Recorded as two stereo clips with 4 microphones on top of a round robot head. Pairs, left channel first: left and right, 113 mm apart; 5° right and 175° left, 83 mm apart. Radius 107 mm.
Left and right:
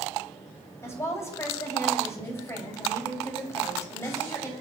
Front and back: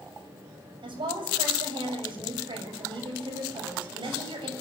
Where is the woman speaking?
155° left, 7 m.